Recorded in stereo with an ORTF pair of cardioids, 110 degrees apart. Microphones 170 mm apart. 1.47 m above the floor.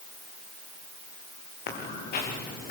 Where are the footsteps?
65° left, 6.5 m.